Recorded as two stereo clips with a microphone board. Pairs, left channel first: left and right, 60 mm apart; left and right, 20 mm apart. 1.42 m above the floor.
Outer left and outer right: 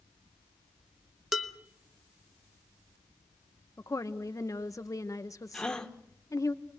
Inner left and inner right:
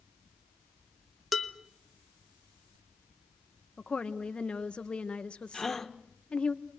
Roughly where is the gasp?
Centre.